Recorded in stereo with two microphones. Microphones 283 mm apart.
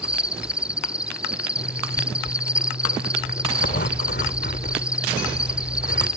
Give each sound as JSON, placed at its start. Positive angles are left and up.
{"t": 0.0, "sound": "an insect", "side_deg": -5}
{"t": 1.6, "sound": "a zipper", "side_deg": 40}